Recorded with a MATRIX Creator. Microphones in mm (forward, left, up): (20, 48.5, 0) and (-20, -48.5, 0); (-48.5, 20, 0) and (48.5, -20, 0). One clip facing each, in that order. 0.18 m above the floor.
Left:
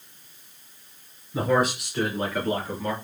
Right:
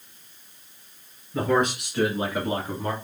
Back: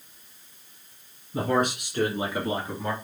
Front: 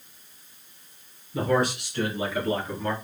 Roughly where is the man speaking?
Behind left.